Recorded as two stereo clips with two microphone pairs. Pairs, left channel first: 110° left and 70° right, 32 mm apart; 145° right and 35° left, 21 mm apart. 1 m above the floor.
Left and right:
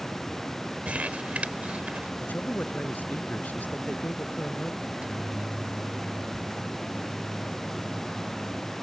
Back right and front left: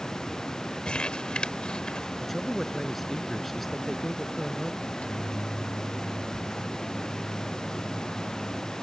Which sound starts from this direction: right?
Crumpling, at 0.8 s.